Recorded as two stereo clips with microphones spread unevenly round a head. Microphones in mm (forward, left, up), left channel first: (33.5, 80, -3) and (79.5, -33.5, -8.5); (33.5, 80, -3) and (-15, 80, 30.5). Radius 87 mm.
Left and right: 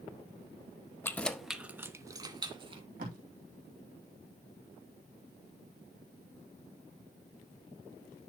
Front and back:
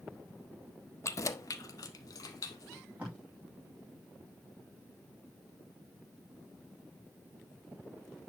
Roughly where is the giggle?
I don't hear a giggle.